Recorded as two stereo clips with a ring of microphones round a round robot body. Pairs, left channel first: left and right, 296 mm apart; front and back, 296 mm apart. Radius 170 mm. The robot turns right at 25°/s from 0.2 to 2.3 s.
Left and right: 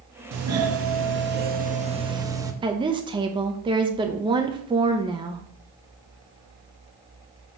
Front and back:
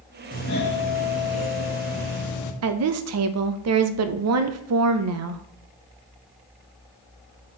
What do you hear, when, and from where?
0.3 s a doorbell: 60° right, 1.2 m; by 2.5 s 10° right, 1.2 m
2.6 s a woman speaking: 160° right, 0.7 m